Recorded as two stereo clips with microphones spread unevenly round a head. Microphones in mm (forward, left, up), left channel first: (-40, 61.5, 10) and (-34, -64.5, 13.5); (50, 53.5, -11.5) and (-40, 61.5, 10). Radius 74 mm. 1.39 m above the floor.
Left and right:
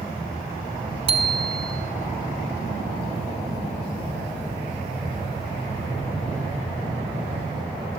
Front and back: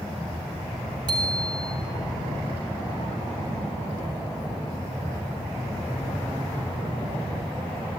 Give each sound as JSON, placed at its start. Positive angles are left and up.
{"t": 1.1, "sound": "a bicycle bell", "azimuth_deg": -130, "distance_m": 2.0}